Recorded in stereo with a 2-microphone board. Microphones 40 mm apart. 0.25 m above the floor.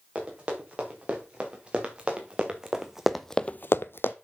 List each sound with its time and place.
0.1 s running footsteps: 30° right (ahead or behind), 5 m; by 4.2 s 65° left (ahead or behind), 0.9 m